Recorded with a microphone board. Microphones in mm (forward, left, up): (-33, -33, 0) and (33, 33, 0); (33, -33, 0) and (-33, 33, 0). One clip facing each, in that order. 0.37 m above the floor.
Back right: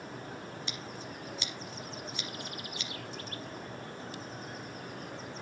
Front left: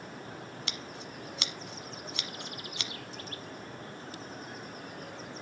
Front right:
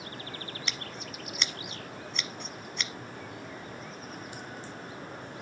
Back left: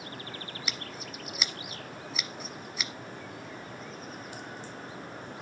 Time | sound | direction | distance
0.7 | scissors | 50° left | 1.1 m